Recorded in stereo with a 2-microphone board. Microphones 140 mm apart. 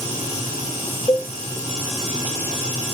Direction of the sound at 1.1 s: 30° left (ahead or behind).